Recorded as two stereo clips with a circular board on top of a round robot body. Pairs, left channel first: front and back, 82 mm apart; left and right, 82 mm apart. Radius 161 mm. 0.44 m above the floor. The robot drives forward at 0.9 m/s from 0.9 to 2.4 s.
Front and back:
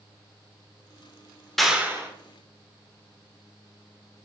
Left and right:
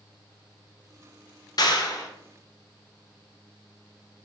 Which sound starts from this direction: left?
A clap, at 1.6 s.